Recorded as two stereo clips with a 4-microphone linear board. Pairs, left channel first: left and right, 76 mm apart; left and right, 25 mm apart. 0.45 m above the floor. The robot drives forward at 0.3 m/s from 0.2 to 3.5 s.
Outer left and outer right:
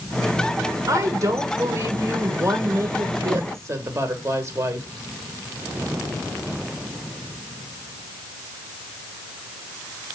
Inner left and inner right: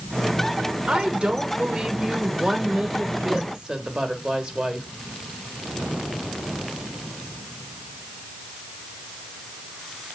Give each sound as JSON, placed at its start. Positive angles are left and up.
{"t": 0.9, "sound": "a woman speaking", "side_deg": -45, "distance_m": 1.2}